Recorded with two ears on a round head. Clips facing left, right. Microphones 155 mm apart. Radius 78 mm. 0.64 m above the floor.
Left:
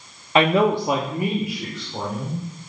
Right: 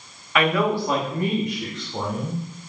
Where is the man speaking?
25° left (ahead or behind), 0.7 m; by 2.4 s centre (ahead or behind), 2.0 m.